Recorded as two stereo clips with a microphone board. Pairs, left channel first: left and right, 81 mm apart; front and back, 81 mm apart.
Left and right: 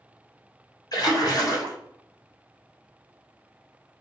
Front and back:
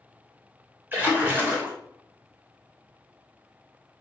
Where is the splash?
115° left, 1.0 m.